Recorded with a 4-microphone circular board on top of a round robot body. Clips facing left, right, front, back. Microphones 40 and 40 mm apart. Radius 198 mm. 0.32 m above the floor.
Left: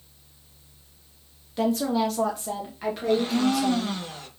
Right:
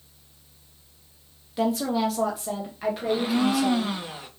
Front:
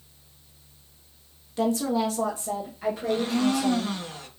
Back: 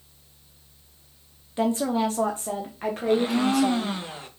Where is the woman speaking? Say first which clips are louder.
Even, back 1 dB; 175° right, 1.4 m; by 4.0 s straight behind, 2.5 m.